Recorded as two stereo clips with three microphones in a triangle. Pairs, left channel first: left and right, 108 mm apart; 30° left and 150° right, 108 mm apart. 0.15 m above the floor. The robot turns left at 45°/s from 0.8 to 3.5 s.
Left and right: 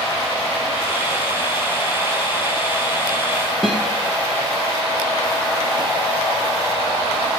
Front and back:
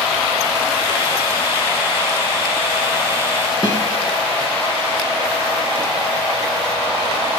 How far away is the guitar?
About 2 m.